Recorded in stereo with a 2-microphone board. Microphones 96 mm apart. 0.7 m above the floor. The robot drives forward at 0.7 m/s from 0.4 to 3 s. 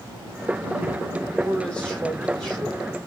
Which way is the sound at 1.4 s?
10° left (ahead or behind).